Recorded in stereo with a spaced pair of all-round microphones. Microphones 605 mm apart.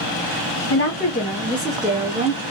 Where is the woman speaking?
20° left (ahead or behind), 1.5 m; by 2.4 s 15° right (ahead or behind), 1.9 m.